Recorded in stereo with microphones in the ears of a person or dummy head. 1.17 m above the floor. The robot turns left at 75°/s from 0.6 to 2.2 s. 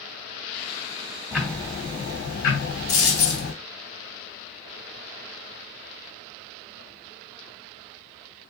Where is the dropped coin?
65° left (ahead or behind), 1.5 m.